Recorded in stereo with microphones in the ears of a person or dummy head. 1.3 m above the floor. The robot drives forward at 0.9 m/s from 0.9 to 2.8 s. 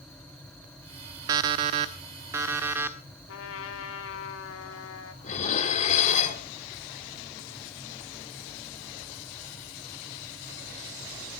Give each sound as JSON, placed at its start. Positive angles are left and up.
{"t": 1.3, "sound": "an alarm clock", "side_deg": -25, "distance_m": 0.9}
{"t": 3.3, "sound": "a trumpet", "side_deg": 80, "distance_m": 2.0}
{"t": 5.2, "sound": "dishes clattering", "side_deg": 45, "distance_m": 2.5}